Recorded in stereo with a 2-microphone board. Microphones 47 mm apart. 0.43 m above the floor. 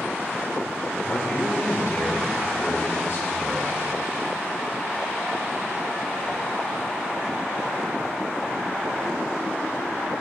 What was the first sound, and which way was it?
A man speaking, 30° left (ahead or behind).